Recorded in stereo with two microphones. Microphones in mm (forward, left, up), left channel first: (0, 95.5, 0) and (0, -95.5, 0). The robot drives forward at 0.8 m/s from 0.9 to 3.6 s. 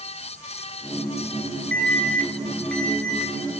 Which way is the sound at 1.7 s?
5° left (ahead or behind).